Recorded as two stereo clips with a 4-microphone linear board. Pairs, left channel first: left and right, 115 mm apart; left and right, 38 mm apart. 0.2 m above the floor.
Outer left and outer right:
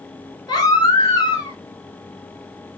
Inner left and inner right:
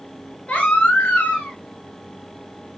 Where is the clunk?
No clunk in this recording.